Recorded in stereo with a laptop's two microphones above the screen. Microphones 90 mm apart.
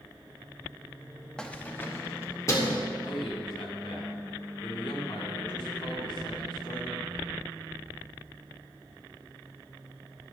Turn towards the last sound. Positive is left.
turn(degrees=70)  # may be behind; listen again after turning